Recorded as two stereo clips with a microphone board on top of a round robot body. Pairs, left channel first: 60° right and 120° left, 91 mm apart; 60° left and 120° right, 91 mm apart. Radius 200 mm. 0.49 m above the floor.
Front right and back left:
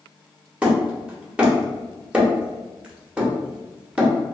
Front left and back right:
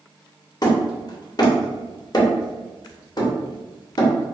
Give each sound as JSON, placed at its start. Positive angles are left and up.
{"t": 0.6, "sound": "hammering", "azimuth_deg": 45, "distance_m": 1.3}